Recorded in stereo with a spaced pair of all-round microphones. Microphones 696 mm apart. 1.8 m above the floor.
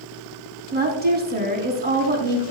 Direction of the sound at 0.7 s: 15° right (ahead or behind).